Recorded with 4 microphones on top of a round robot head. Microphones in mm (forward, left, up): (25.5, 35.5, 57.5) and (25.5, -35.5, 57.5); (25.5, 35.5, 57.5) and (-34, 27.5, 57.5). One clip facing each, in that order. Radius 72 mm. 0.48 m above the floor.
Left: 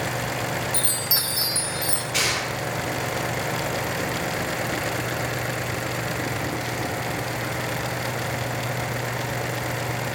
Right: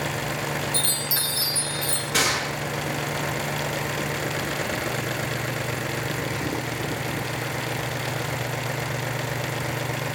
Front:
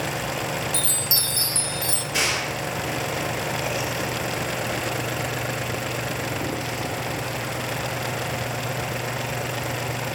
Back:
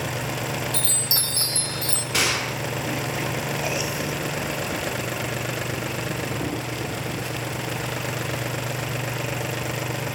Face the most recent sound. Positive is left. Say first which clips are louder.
# right 3 dB, back 1 dB
turn(degrees=-145)